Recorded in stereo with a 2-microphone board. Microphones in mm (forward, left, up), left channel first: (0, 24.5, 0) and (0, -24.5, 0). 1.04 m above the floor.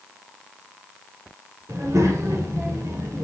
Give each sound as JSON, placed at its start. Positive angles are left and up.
{"t": 1.7, "sound": "a child speaking", "side_deg": -85, "distance_m": 2.5}